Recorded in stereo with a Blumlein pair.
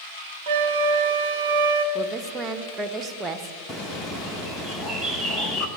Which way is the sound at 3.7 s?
5° left.